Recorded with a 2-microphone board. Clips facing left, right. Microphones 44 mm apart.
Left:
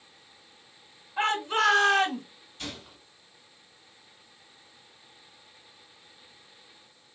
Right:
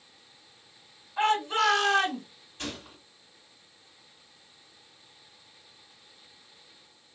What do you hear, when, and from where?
1.2 s a shout: centre (ahead or behind), 1.6 m; by 2.2 s 25° left (ahead or behind), 1.7 m
2.6 s a gunshot: 40° right (ahead or behind), 2 m